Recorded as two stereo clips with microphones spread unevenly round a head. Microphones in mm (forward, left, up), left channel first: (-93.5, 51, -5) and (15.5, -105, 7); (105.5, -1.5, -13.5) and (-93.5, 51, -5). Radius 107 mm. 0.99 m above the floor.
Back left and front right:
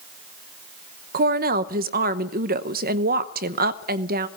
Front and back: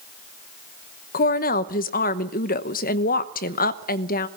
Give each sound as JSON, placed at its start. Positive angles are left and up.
{"t": 1.1, "sound": "a woman speaking", "azimuth_deg": -35, "distance_m": 0.9}